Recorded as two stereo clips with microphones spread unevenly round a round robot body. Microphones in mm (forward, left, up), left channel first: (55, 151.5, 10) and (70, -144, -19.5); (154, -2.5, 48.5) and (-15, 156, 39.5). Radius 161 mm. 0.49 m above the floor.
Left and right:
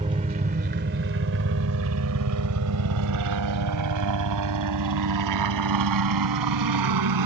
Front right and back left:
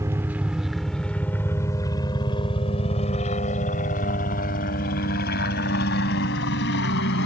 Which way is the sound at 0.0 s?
150° right.